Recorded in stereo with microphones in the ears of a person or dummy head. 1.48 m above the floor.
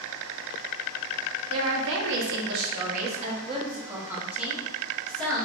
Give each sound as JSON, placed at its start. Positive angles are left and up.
{"t": 1.5, "sound": "a woman speaking", "side_deg": -80, "distance_m": 1.1}